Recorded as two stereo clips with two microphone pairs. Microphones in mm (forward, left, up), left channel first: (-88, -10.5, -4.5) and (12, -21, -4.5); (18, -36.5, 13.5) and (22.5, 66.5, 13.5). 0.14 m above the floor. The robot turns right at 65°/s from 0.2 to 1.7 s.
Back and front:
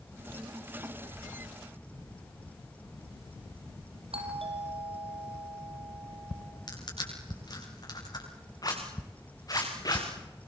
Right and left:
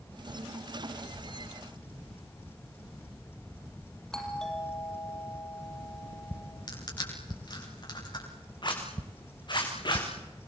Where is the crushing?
140° right, 9 m.